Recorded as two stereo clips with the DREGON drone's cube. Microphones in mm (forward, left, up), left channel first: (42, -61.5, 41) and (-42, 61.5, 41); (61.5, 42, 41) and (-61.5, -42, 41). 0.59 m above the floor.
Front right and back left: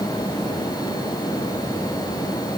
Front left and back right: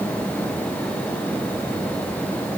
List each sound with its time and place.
Only background noise.